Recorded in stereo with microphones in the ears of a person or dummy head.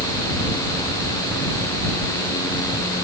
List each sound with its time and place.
Only background noise.